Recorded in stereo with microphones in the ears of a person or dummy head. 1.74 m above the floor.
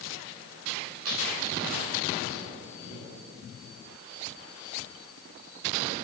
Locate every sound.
1.1 s tearing paper: 75° right (ahead or behind), 4 m